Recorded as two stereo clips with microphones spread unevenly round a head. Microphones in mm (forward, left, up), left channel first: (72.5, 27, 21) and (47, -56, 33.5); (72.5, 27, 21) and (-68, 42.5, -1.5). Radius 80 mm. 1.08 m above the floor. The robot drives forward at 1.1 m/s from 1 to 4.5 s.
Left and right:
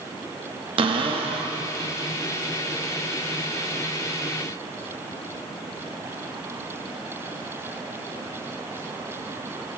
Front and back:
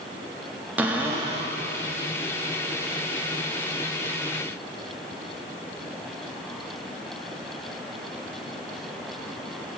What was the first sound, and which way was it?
A cupboard door, 100° right.